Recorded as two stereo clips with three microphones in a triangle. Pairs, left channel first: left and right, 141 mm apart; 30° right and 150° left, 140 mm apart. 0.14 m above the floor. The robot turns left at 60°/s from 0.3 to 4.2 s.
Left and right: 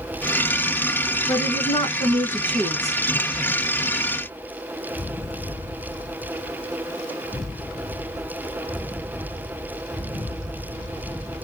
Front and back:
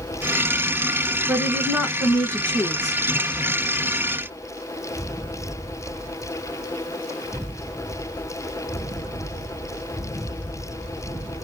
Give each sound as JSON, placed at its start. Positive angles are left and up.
{"t": 1.3, "sound": "a woman speaking", "azimuth_deg": 95, "distance_m": 1.2}